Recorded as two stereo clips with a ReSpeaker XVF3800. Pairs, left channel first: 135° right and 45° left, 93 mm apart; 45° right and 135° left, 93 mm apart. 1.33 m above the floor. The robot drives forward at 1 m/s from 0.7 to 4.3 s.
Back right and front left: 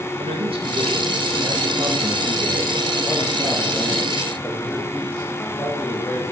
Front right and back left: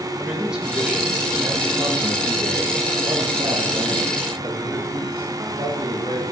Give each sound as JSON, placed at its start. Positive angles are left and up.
{"t": 0.2, "sound": "a man speaking", "azimuth_deg": 50, "distance_m": 1.7}